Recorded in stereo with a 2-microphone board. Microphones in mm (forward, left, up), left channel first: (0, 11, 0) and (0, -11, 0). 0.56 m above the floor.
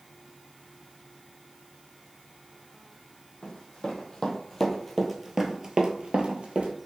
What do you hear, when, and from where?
3.4 s running footsteps: 35° left (ahead or behind), 1.5 m; by 6.7 s 60° right (ahead or behind), 1.0 m